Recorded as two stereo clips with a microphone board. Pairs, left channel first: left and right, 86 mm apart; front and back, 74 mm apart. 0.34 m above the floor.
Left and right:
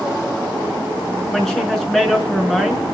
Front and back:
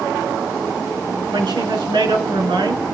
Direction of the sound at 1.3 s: 175° left.